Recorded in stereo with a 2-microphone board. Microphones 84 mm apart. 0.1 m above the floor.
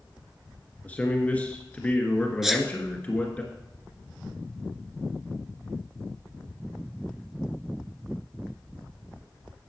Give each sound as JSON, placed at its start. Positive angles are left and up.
{"t": 0.8, "sound": "a man speaking", "side_deg": 15, "distance_m": 1.7}
{"t": 2.4, "sound": "a sneeze", "side_deg": -5, "distance_m": 1.2}